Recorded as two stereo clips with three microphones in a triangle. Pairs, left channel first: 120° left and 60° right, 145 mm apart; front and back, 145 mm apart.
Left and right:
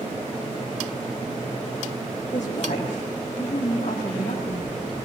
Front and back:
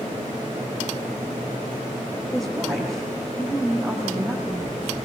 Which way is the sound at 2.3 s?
85° left.